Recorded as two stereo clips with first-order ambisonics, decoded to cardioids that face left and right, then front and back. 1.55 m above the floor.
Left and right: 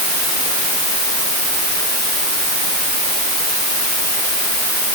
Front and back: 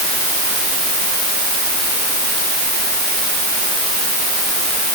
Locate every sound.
Only background noise.